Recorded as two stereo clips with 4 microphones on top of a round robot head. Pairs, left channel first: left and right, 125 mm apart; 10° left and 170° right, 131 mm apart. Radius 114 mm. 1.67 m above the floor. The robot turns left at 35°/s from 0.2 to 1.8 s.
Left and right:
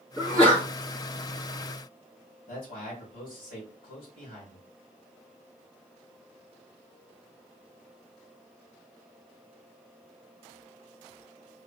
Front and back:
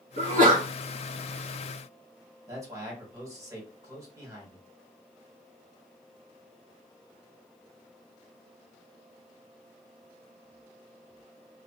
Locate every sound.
0.2 s a sneeze: straight behind, 2.5 m; by 0.7 s 165° left, 2.5 m
2.5 s a man speaking: 125° left, 1.8 m